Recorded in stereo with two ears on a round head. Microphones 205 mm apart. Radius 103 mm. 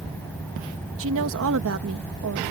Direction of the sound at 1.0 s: 60° right (ahead or behind).